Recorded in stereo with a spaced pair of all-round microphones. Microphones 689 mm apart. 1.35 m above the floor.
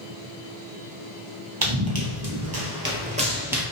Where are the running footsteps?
35° right (ahead or behind), 1.6 m; by 3.6 s centre (ahead or behind), 1.3 m.